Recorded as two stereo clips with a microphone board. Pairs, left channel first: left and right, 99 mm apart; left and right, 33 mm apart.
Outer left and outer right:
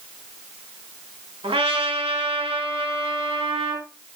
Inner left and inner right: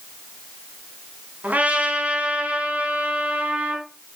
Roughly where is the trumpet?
Right.